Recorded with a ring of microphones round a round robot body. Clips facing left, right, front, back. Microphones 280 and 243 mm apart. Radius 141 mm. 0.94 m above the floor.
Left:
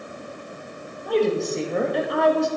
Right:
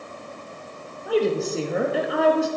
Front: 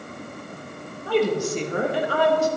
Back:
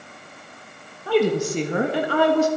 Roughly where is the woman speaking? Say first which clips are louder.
Even, back 2 dB; behind.